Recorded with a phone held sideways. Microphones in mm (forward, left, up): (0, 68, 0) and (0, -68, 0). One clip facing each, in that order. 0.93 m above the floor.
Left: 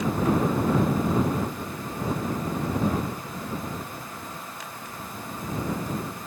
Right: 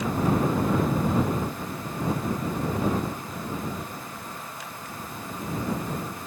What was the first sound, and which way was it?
Only background noise.